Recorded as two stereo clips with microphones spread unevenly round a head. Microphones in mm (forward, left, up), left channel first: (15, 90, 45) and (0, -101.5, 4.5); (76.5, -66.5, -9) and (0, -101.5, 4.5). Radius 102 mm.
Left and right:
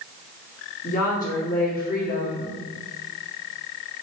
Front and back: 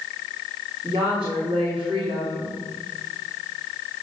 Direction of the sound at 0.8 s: 140° left.